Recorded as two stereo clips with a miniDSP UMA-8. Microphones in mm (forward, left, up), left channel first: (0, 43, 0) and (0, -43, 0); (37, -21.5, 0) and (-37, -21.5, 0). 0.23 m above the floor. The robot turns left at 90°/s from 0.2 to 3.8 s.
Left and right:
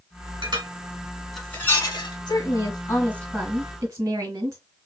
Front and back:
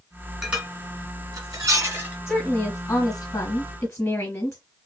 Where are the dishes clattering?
95° right, 1.5 m; by 2.2 s 105° left, 1.5 m.